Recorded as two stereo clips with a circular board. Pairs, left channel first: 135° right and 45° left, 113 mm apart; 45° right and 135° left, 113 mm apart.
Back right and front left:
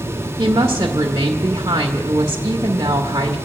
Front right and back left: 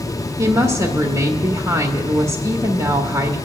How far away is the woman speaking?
About 1.0 m.